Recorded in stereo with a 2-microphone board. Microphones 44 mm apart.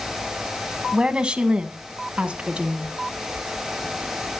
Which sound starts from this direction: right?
A woman speaking, at 0.9 s.